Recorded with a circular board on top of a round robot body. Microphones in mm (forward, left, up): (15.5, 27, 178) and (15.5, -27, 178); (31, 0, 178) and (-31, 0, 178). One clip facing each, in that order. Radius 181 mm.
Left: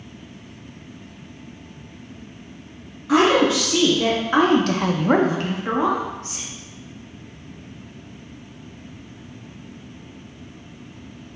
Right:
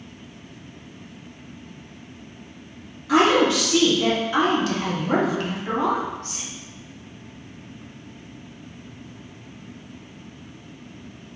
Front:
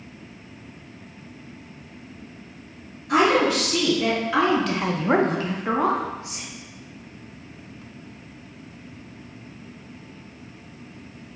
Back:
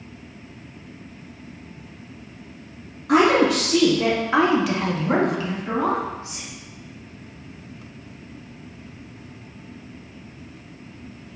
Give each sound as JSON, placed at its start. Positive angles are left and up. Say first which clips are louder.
{"t": 3.1, "sound": "a woman speaking", "louder": "left 1 dB, back 2 dB", "azimuth_deg": 160, "distance_m": 1.3}